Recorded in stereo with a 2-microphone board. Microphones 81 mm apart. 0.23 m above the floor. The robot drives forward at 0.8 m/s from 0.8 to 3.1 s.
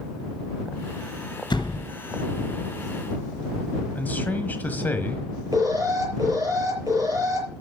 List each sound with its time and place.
1.5 s a door slam: 65° left (ahead or behind), 2.5 m; by 1.9 s 70° left (ahead or behind), 2.5 m
4.0 s a man speaking: 20° left (ahead or behind), 1.3 m
5.5 s an alarm: 45° right (ahead or behind), 5.5 m